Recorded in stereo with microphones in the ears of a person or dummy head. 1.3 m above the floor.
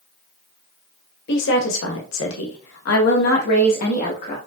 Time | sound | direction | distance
1.3 | a woman speaking | 65° left (ahead or behind) | 1.7 m